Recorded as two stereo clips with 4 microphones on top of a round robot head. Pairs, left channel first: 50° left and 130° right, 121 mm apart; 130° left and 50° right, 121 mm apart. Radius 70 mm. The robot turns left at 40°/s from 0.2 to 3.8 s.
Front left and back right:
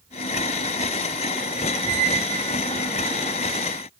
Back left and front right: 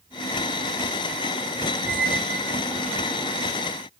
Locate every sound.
1.8 s a squeak: 105° right, 1.2 m; by 3.5 s 170° right, 1.2 m